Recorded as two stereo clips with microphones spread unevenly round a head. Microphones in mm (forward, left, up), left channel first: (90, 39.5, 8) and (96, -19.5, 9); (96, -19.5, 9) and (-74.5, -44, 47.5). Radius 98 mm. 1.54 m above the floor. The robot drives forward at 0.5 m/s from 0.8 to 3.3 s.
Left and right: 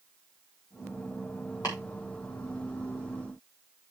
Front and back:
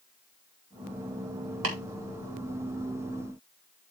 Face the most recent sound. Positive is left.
turn(degrees=170)